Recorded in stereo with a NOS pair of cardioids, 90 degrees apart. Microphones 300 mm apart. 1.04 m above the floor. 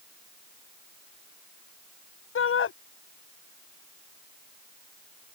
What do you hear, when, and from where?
2.4 s a shout: 45° left